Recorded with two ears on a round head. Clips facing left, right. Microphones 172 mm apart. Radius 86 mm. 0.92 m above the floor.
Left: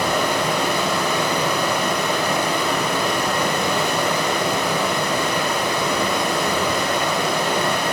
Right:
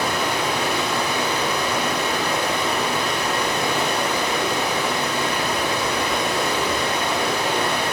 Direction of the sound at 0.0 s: 75° left (ahead or behind).